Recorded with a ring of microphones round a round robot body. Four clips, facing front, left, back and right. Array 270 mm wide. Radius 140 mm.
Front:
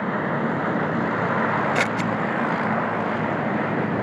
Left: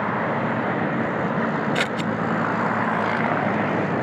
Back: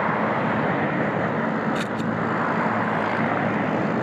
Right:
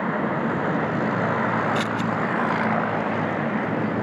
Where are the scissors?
35° left, 1.0 m.